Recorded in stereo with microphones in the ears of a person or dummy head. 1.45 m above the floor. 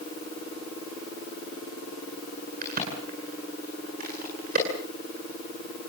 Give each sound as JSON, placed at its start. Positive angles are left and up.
{"t": 2.6, "sound": "a crack", "side_deg": -55, "distance_m": 9.5}